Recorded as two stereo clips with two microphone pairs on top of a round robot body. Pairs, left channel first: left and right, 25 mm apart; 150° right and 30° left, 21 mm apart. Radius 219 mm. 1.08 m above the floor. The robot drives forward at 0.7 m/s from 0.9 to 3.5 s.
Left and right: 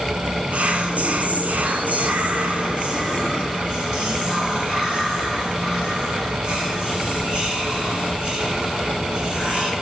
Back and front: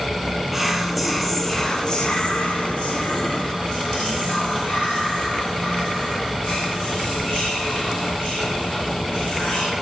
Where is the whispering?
60° right, 1.1 m; by 9.7 s 145° right, 1.6 m.